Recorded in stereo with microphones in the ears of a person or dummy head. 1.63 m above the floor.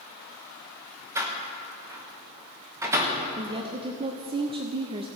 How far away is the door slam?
About 0.9 m.